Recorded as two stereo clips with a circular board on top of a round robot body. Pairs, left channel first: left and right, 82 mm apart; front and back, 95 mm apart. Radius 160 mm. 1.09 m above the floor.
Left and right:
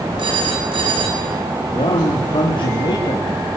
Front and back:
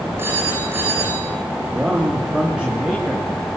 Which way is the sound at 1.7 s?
100° left.